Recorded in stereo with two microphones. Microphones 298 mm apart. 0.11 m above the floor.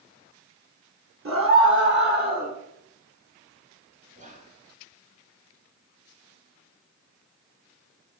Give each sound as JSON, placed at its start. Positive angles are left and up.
{"t": 1.2, "sound": "a scream", "side_deg": -50, "distance_m": 2.5}
{"t": 4.2, "sound": "whispering", "side_deg": -25, "distance_m": 1.2}